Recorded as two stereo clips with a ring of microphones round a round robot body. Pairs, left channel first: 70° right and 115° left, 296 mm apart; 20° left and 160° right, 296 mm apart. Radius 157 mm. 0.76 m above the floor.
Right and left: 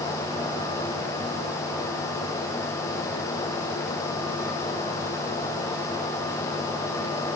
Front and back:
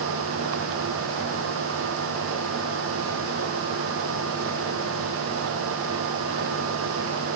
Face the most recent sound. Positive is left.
No sound to turn to.